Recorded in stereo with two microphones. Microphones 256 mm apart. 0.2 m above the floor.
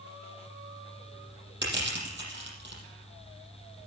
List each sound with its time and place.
1.6 s crushing: 45° right (ahead or behind), 7 m